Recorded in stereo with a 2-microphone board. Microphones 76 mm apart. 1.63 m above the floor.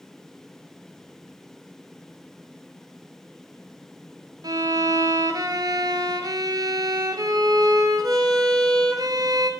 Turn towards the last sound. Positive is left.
turn(degrees=-60)  # may be behind; listen again after turning